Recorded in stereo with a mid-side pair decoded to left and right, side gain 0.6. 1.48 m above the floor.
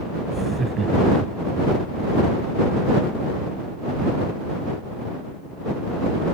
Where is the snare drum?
I don't hear a snare drum.